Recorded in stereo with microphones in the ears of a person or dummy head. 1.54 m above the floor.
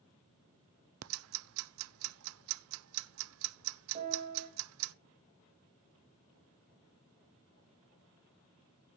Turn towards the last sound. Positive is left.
turn(degrees=-40)  # may be behind; listen again after turning